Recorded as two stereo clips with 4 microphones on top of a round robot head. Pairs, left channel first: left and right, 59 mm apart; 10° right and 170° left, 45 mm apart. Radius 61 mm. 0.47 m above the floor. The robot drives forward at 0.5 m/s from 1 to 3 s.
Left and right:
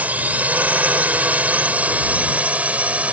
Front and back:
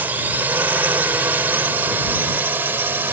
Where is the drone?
150° right; by 3.1 s 155° right.